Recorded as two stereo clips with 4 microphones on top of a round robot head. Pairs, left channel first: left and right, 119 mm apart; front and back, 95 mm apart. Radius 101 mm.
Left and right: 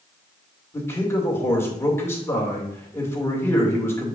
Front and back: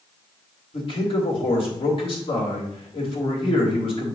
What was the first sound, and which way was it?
A man speaking, 20° left.